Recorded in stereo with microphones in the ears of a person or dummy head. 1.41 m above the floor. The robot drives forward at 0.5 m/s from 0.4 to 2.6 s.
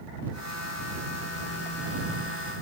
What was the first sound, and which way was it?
Only background noise.